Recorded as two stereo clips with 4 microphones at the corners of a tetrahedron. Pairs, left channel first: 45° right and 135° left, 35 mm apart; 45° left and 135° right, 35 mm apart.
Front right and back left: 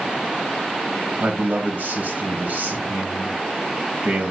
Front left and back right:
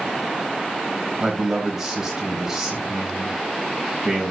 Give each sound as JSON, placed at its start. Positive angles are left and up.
{"t": 1.2, "sound": "a man speaking", "azimuth_deg": 150, "distance_m": 3.5}